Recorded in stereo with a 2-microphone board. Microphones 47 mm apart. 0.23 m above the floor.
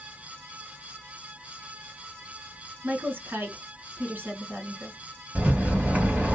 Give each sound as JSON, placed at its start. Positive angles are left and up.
{"t": 2.8, "sound": "a woman speaking", "side_deg": -45, "distance_m": 1.6}
{"t": 5.3, "sound": "a rattle", "side_deg": -30, "distance_m": 1.7}